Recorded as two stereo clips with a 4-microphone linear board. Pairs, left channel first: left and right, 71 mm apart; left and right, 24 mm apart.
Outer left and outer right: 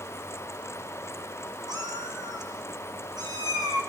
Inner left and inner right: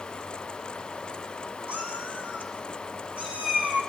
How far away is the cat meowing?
About 6.5 m.